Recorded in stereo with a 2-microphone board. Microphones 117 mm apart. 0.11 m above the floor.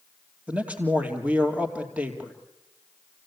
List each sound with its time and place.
0.5 s a man speaking: 10° right (ahead or behind), 3 m